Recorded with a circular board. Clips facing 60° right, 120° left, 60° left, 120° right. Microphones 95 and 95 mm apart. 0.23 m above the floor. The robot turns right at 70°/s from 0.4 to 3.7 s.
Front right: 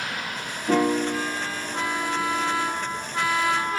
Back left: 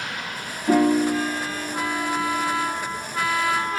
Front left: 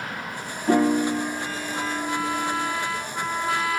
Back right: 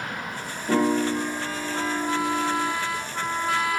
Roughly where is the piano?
Left.